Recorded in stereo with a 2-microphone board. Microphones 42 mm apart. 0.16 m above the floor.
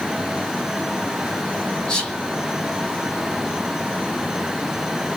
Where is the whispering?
20° left (ahead or behind), 1.0 m.